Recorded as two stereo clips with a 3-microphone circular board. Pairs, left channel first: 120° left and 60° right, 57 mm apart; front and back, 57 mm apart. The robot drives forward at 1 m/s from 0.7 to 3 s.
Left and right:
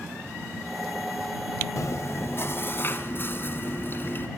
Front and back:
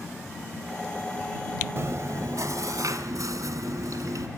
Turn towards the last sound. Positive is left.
turn(degrees=170)